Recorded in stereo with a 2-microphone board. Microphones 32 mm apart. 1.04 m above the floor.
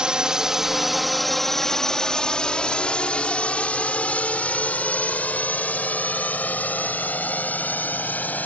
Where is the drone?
30° right (ahead or behind); by 8.5 s 65° left (ahead or behind).